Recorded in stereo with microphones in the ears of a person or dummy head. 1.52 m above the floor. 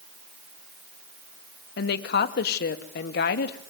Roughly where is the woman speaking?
Left.